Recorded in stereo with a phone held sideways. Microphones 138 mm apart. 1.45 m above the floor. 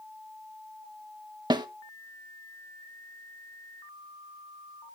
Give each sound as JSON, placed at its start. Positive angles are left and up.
{"t": 1.5, "sound": "a snare drum", "side_deg": -30, "distance_m": 0.7}